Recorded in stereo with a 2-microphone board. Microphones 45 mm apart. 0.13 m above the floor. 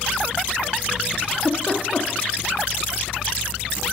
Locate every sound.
1.2 s a giggle: 25° left (ahead or behind), 2 m